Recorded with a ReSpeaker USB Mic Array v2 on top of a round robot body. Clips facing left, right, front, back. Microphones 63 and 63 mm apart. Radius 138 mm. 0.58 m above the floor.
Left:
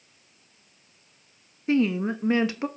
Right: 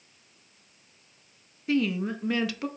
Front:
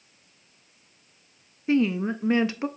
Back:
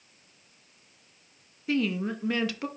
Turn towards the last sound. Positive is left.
turn(degrees=45)